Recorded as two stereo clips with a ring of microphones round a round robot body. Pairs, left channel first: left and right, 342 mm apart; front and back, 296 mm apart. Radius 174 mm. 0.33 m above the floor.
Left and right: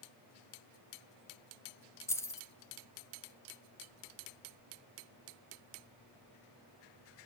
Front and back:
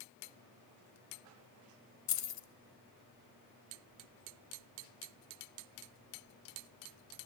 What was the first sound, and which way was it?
Keys jangling, 10° left.